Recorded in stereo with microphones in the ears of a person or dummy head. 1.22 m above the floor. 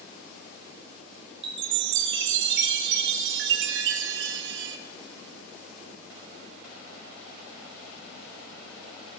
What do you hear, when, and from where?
1.4 s a chime: 65° right (ahead or behind), 0.9 m